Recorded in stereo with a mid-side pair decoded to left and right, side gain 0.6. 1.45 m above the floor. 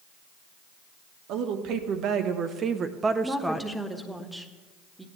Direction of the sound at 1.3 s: 70° right.